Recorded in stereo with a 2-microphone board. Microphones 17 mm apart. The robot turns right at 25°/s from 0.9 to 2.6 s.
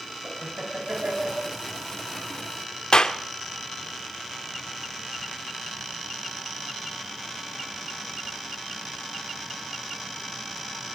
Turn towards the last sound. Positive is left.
turn(degrees=45)  # may be behind; listen again after turning